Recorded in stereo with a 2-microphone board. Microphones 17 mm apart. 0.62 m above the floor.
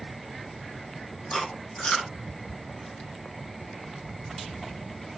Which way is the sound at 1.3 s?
55° left (ahead or behind).